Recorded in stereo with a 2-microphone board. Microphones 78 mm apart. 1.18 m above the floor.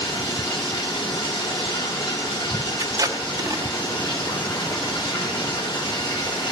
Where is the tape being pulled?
50° right (ahead or behind), 1.2 m.